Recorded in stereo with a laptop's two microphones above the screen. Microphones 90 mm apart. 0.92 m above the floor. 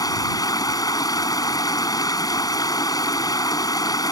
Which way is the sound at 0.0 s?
45° left (ahead or behind).